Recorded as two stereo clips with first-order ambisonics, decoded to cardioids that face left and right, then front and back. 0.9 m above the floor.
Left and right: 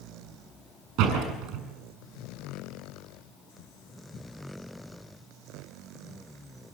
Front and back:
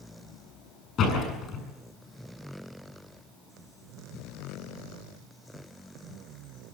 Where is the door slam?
55° right, 7 m.